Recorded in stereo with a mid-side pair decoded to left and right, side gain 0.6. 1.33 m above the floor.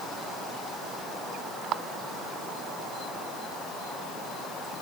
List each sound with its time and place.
Only background noise.